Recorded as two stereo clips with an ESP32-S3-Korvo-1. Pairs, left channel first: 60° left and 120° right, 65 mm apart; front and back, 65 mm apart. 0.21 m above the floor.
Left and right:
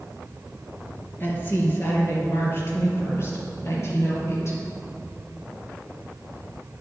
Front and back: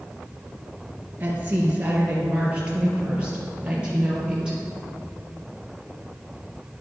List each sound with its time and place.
1.2 s a woman speaking: 115° left, 4 m; by 4.6 s 100° left, 5.5 m